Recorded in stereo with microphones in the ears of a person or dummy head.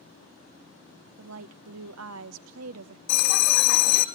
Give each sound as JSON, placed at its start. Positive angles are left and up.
{"t": 1.2, "sound": "a woman speaking", "side_deg": -80, "distance_m": 1.0}
{"t": 3.1, "sound": "a bell", "side_deg": 65, "distance_m": 1.3}